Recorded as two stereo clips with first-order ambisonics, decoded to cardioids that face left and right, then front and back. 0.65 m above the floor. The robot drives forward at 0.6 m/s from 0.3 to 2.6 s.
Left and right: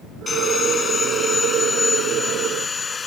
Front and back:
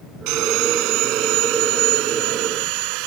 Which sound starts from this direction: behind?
Sawing, at 0.3 s.